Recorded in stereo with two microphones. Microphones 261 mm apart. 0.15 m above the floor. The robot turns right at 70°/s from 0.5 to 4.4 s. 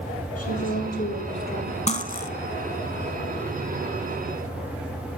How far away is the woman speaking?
About 3.5 m.